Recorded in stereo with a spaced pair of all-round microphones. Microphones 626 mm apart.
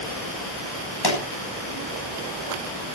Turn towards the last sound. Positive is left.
turn(degrees=40)  # may be behind; listen again after turning